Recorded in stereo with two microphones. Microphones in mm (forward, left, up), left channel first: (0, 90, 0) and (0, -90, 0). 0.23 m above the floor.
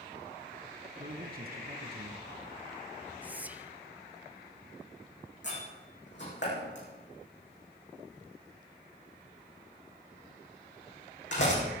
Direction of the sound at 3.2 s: 10° right (ahead or behind).